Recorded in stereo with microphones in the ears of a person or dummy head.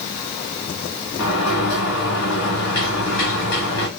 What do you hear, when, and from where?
1.2 s a sliding door: 65° left (ahead or behind), 1.4 m